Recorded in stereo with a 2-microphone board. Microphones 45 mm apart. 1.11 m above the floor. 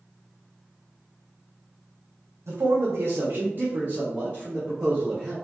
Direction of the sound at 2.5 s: 80° right.